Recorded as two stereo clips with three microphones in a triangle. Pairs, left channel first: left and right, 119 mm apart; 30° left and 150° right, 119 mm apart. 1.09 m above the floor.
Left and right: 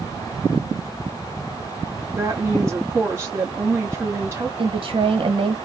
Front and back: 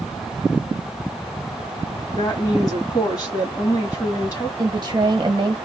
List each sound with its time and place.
2.1 s a woman speaking: 20° right, 1.8 m
4.6 s a woman speaking: 110° right, 1.2 m